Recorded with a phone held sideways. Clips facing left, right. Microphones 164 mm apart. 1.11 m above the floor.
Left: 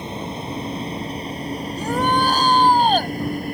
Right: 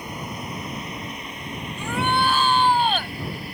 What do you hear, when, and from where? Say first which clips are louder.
0.0 s a vehicle: left 4 dB; 25° left (ahead or behind); by 3.5 s 50° left (ahead or behind)
1.8 s a shout: left 3 dB; 40° left (ahead or behind)